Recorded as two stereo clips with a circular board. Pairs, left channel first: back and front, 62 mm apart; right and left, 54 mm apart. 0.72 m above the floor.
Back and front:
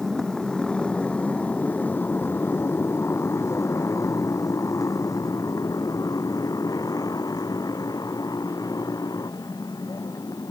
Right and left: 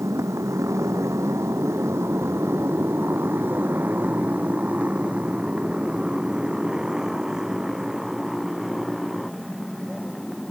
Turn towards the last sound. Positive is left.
turn(degrees=-175)